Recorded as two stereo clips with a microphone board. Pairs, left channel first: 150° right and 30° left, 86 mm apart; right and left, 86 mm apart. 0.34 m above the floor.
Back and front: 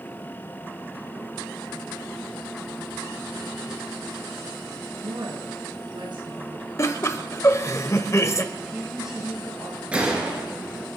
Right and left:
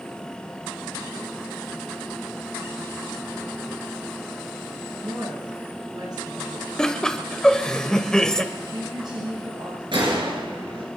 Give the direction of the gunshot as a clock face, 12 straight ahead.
8 o'clock.